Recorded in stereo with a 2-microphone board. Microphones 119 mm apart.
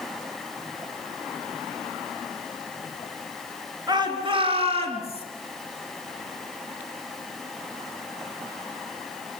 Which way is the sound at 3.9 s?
35° right (ahead or behind).